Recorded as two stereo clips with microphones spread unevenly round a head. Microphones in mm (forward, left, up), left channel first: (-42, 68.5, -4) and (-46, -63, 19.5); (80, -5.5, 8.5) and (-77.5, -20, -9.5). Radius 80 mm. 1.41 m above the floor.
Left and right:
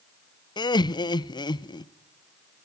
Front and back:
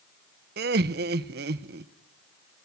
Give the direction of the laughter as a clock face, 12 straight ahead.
7 o'clock.